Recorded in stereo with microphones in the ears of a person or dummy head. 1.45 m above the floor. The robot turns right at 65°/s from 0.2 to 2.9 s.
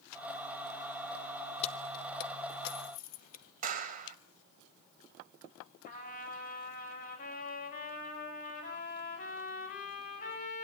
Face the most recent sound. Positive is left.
turn(degrees=45)  # may be behind; listen again after turning